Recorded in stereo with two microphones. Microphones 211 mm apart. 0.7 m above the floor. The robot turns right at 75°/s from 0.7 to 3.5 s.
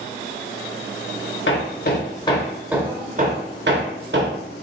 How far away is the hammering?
About 0.7 m.